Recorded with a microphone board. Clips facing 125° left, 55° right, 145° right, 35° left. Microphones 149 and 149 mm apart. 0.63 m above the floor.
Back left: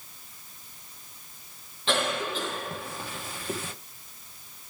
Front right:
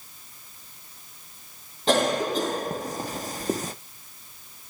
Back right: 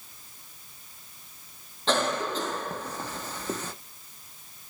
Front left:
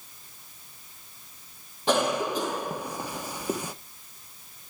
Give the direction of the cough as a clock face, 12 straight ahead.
1 o'clock.